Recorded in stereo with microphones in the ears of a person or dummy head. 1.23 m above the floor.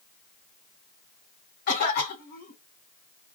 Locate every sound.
1.7 s a cough: 55° left (ahead or behind), 1.7 m